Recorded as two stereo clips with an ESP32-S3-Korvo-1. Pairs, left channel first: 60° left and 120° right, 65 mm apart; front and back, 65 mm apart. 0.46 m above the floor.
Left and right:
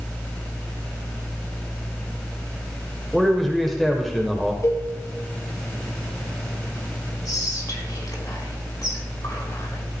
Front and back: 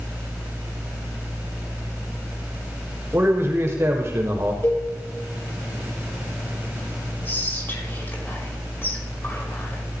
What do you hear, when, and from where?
3.1 s a man speaking: 145° left, 1.5 m
4.6 s a cowbell: 45° left, 2.5 m
7.2 s whispering: 55° left, 4.5 m